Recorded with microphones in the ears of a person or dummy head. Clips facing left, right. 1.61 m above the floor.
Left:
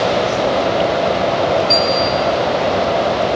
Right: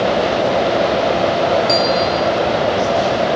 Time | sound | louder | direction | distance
1.7 | a bell | even | 60° right (ahead or behind) | 4.5 m